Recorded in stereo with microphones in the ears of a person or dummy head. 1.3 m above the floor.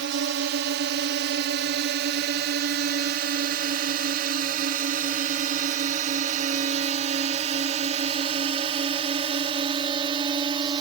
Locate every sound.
0.0 s a drone: 60° right (ahead or behind); by 10.8 s 25° right (ahead or behind)